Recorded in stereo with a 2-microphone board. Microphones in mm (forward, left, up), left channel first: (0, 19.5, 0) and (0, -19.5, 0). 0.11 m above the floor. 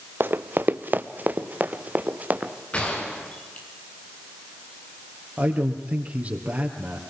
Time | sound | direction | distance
0.2 | running footsteps | 65° right (ahead or behind) | 0.8 m
2.7 | a gunshot | 35° left (ahead or behind) | 5 m
5.4 | a man speaking | 40° right (ahead or behind) | 3 m